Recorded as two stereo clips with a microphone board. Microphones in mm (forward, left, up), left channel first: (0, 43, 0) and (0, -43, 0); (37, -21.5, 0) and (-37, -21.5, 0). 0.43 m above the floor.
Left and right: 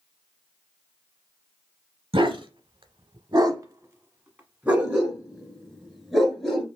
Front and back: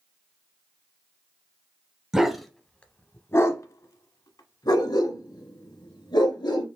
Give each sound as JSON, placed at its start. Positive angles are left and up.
{"t": 2.1, "sound": "a dog barking", "azimuth_deg": -100, "distance_m": 0.8}